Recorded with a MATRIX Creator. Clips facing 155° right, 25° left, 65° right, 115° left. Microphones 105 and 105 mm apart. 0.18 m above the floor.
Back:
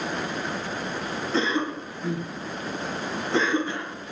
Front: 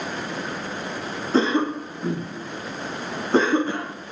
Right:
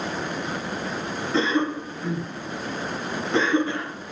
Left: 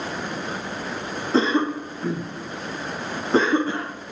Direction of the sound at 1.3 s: 65° left.